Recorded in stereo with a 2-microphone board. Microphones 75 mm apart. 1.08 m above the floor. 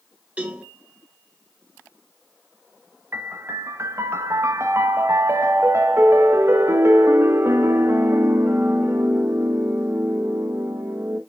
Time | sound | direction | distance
0.4 | a cowbell | 20° right (ahead or behind) | 3.5 m
3.1 | a piano | 35° right (ahead or behind) | 1.3 m